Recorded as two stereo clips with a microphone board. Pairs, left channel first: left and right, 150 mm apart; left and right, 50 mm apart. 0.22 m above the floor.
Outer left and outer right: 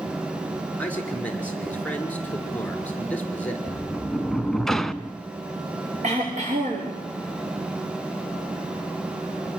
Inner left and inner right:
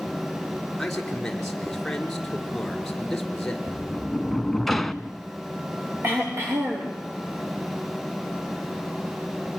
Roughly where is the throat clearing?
Right.